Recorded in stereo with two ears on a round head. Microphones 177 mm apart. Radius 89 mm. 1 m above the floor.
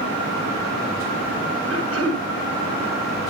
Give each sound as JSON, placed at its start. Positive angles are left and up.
{"t": 1.7, "sound": "throat clearing", "side_deg": -80, "distance_m": 7.5}